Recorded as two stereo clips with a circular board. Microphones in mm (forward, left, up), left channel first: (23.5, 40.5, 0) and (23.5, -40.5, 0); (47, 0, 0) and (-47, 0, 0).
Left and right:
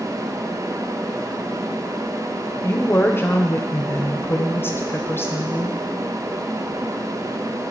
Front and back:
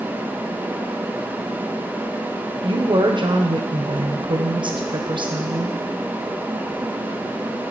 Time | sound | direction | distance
2.6 | a woman speaking | 150° left | 0.8 m